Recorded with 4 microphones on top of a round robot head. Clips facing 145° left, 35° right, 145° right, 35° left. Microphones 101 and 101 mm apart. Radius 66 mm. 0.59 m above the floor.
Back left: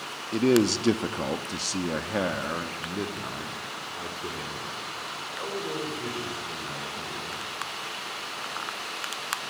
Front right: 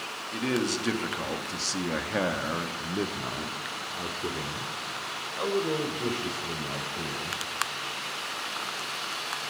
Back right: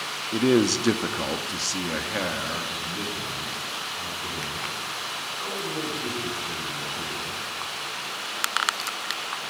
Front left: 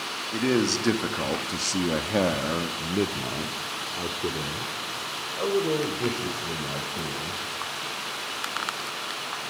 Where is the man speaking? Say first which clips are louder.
Back left 7 dB, back right 4 dB; 160° left, 1.2 m; by 7.4 s 25° left, 3.5 m.